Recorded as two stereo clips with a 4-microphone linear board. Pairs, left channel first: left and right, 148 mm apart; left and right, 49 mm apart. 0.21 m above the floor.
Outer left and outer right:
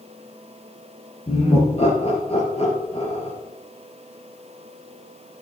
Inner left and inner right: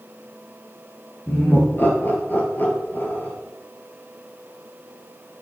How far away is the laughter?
About 4 m.